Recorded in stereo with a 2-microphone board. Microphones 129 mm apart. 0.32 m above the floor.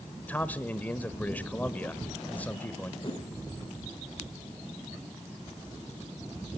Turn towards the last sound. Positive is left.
turn(degrees=40)  # may be behind; listen again after turning